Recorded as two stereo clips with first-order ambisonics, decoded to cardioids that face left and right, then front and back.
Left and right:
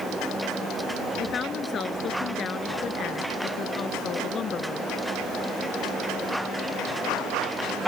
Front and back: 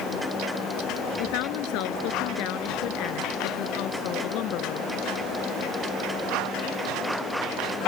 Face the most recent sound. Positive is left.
turn(degrees=30)